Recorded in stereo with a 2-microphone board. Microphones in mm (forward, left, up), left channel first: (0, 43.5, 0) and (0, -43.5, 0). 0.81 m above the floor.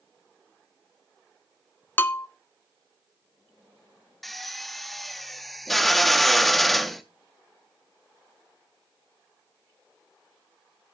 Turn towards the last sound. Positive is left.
turn(degrees=0)  # may be behind; listen again after turning